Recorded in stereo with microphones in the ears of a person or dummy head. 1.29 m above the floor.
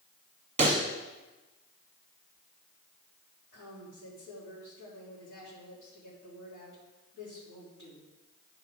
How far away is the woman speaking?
About 3 m.